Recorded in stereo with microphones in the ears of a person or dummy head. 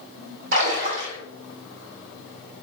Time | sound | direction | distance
0.5 | a splash | 70° right (ahead or behind) | 1.4 m